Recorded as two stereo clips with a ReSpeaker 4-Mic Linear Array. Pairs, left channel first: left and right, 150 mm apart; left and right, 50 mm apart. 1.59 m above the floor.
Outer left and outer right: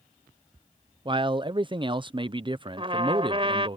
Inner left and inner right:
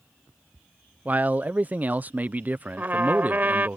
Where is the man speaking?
35° right (ahead or behind).